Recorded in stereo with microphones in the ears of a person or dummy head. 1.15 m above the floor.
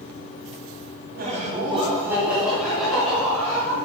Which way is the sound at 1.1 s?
35° right (ahead or behind).